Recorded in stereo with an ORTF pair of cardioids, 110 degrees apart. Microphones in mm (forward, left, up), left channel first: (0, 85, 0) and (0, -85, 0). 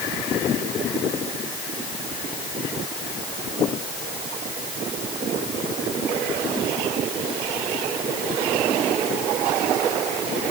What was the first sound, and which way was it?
Only background noise.